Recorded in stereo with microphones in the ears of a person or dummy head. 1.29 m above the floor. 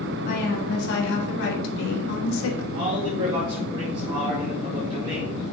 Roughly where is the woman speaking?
Left.